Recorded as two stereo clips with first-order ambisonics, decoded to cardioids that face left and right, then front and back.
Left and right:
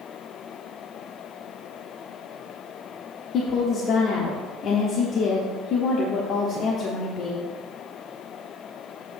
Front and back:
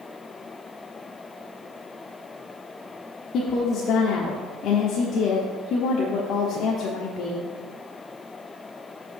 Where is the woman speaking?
45° left, 1.0 m.